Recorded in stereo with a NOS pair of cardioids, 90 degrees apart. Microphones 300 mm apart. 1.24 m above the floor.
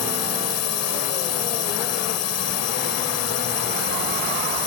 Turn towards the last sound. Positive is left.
turn(degrees=65)